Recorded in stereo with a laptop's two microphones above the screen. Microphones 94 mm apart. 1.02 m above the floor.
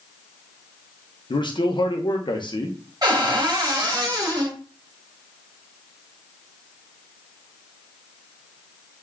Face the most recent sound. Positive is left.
turn(degrees=-45)  # may be behind; listen again after turning